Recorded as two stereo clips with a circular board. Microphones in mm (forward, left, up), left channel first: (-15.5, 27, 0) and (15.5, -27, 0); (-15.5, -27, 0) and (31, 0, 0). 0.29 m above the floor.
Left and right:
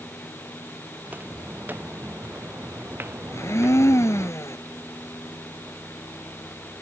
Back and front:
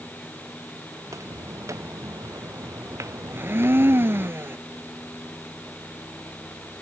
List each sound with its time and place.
1.0 s footsteps: 5° left; by 4.3 s 10° right
3.3 s a blender: 75° left